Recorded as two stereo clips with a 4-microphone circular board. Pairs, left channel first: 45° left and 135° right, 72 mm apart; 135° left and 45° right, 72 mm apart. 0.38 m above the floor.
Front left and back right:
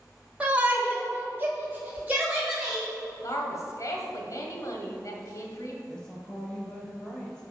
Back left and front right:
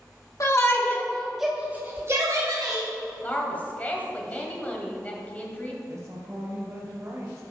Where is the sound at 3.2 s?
70° left, 1.8 m.